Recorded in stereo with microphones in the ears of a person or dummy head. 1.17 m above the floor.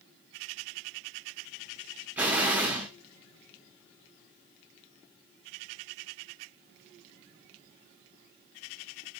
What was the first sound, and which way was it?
An explosion, 15° right (ahead or behind).